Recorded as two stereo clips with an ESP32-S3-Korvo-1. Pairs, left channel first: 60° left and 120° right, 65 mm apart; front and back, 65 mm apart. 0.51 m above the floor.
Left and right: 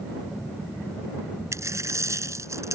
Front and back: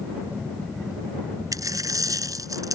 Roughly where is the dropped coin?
Behind.